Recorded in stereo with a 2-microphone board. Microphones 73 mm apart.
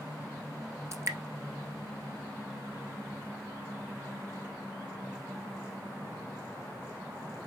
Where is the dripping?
40° right (ahead or behind), 1.3 m.